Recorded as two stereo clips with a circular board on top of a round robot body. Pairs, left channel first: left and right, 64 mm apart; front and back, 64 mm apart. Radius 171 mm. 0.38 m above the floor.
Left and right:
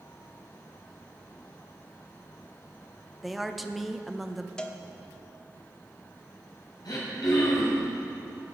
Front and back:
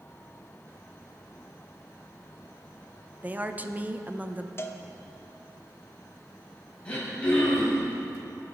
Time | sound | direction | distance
3.2 | a woman speaking | 175° right | 0.9 m
4.6 | a cowbell | 20° left | 1.2 m
6.8 | throat clearing | 75° left | 4 m